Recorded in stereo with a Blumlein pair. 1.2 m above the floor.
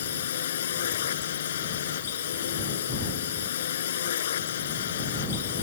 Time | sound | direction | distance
0.0 | a drone | 60° left | ?